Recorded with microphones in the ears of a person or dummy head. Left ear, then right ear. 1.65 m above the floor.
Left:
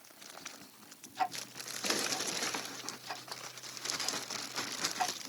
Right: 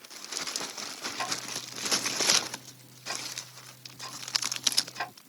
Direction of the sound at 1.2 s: 20° right (ahead or behind).